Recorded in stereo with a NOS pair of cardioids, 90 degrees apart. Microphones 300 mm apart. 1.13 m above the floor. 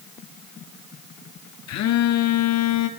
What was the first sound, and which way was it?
A phone buzzing, 65° left.